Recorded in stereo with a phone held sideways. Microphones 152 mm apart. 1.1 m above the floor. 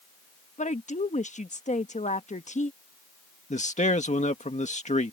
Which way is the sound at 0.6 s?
50° left (ahead or behind).